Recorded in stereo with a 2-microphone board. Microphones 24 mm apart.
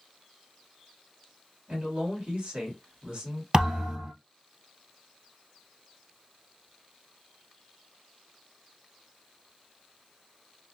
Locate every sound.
1.7 s a man speaking: 55° right (ahead or behind), 1.7 m
3.5 s a thud: 45° right (ahead or behind), 1.5 m